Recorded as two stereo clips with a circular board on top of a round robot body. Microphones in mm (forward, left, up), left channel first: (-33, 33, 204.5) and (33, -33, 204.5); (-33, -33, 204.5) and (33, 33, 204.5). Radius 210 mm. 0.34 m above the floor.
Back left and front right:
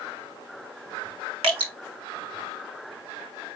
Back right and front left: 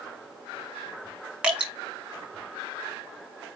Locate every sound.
1.4 s dripping: 35° right, 2.5 m